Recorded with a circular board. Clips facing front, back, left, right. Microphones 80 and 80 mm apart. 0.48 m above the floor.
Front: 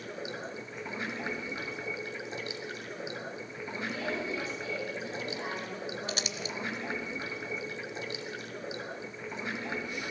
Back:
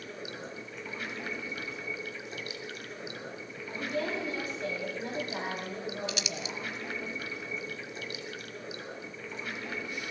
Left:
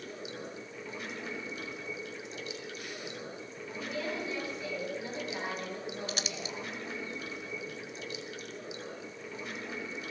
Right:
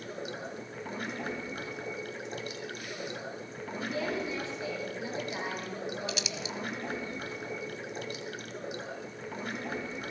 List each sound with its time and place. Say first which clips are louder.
0.0 s running water: front 2 dB, right 3 dB; 60° right, 1.8 m
3.7 s a woman speaking: back 2 dB, right 3 dB; 155° right, 10 m
6.1 s crumpling: even, right 2 dB; 45° left, 0.7 m